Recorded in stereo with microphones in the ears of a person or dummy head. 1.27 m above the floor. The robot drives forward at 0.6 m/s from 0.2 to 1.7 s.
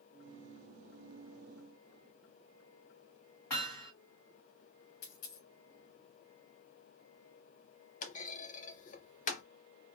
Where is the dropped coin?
45° left (ahead or behind), 0.7 m.